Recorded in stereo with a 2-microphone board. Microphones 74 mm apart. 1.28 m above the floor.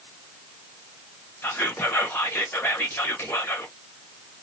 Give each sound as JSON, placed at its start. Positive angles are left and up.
{"t": 1.4, "sound": "whispering", "side_deg": 30, "distance_m": 1.2}